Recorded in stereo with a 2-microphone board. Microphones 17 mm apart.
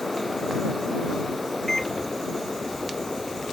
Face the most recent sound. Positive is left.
turn(degrees=25)  # may be behind; listen again after turning